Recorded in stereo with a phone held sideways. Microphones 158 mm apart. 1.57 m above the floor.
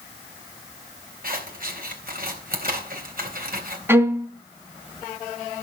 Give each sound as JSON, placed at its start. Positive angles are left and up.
{"t": 1.2, "sound": "scissors", "side_deg": -70, "distance_m": 3.5}
{"t": 3.9, "sound": "a violin", "side_deg": -15, "distance_m": 2.5}